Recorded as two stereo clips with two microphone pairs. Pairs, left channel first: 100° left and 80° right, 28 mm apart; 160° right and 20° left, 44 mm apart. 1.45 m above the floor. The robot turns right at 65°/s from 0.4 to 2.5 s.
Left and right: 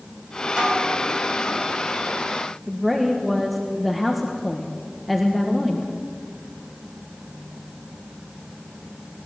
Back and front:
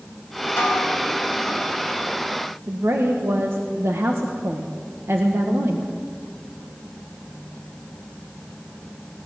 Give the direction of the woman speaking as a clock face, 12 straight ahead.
11 o'clock.